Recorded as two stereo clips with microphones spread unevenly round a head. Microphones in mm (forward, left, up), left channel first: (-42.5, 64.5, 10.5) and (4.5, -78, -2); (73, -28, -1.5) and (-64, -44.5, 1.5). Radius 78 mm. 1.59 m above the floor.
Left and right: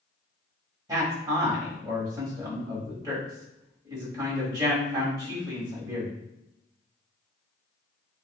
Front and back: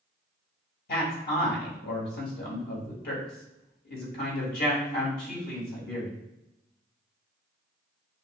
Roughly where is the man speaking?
Ahead.